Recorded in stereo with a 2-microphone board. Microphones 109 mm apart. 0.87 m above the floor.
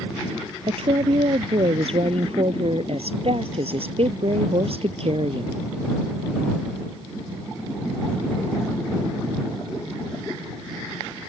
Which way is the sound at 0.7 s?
60° right (ahead or behind).